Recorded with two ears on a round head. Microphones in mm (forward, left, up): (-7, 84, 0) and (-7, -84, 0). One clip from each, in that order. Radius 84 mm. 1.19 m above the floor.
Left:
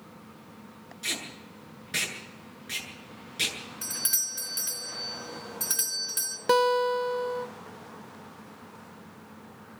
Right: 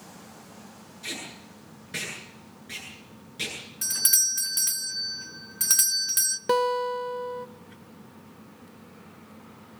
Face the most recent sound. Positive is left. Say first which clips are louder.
# left 3 dB
turn(degrees=15)  # may be behind; listen again after turning